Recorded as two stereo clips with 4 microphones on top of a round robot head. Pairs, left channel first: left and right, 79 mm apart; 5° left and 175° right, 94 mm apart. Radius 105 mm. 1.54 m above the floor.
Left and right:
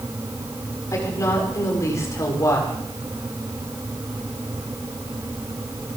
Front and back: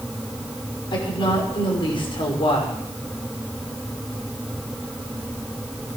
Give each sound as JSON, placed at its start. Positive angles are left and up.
{"t": 0.9, "sound": "a woman speaking", "azimuth_deg": 40, "distance_m": 5.0}